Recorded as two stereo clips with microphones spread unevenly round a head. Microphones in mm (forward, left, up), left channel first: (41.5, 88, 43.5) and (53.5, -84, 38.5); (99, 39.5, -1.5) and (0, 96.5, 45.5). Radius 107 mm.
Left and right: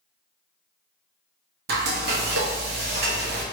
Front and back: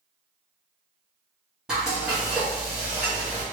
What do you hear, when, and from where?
1.7 s frying: 120° right, 0.9 m